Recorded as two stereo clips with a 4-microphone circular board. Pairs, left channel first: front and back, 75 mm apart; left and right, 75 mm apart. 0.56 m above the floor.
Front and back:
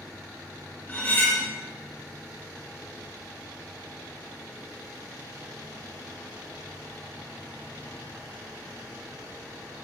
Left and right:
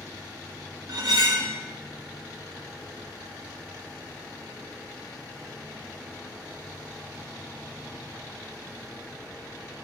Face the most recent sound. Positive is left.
turn(degrees=-65)